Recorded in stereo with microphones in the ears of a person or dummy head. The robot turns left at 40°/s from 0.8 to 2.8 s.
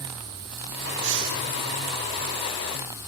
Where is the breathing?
70° right (ahead or behind), 1.3 m; by 1.4 s 80° right, 1.3 m.